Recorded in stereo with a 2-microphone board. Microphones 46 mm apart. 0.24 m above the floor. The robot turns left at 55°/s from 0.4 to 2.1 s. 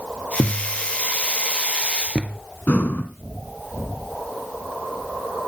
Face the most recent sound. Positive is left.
turn(degrees=45)  # may be behind; listen again after turning